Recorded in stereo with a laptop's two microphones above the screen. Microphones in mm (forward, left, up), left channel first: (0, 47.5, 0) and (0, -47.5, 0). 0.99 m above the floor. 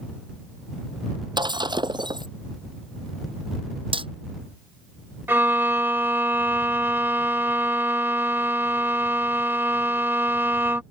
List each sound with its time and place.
1.4 s breaking glass: 55° right (ahead or behind)
3.9 s hammering: 65° right (ahead or behind)
5.3 s a violin: 25° right (ahead or behind)